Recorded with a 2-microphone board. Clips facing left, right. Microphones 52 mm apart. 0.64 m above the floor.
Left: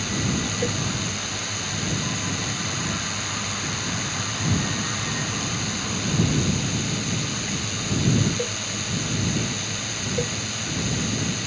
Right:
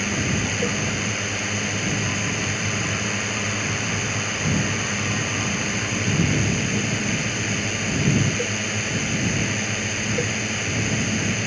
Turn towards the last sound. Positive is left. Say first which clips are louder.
# right 2 dB
turn(degrees=-40)  # may be behind; listen again after turning